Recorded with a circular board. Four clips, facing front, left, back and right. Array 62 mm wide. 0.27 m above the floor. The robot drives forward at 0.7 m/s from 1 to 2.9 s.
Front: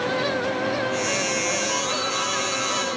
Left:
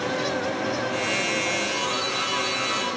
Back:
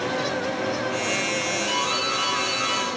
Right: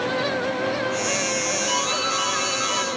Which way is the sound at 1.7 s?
130° right.